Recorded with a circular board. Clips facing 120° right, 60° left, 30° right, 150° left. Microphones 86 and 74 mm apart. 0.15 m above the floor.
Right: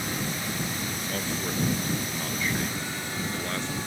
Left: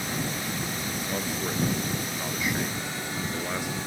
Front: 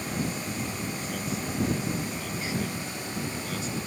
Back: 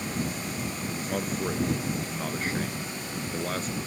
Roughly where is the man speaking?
Behind left.